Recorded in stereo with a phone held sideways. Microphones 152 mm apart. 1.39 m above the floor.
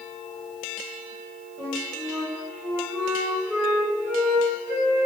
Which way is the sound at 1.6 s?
15° right (ahead or behind).